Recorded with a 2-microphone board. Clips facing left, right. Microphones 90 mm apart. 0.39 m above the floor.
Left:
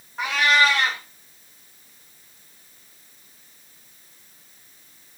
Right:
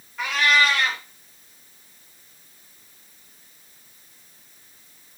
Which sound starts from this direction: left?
A cat meowing, at 0.2 s.